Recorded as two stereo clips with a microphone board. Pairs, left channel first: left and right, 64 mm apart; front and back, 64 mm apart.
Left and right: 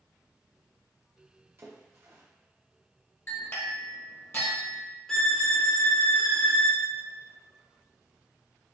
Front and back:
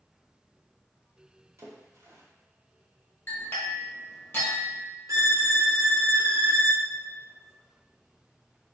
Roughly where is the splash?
Behind right.